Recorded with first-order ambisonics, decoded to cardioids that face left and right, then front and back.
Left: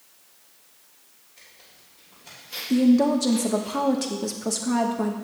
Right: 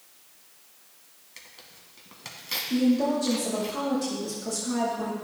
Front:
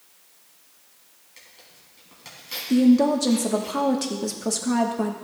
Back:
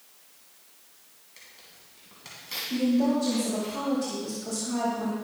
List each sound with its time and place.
1.4 s tearing paper: 85° right, 2.0 m
2.7 s a woman speaking: 40° left, 1.1 m